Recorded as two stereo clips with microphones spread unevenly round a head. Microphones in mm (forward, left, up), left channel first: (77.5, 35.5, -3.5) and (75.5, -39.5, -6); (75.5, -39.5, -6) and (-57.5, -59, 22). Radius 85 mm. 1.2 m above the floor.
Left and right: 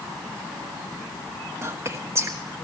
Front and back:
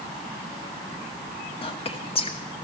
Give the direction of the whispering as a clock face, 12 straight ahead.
1 o'clock.